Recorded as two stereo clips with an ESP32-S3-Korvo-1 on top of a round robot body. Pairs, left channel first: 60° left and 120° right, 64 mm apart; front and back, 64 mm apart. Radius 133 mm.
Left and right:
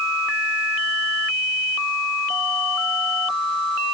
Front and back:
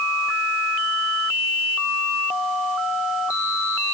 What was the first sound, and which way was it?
Only background noise.